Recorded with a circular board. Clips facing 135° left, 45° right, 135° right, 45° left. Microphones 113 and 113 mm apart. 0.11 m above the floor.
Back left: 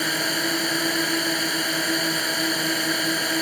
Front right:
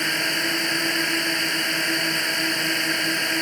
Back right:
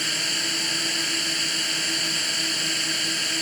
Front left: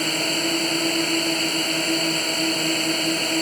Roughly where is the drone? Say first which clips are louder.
Back left 1 dB, front left 9 dB; ahead left.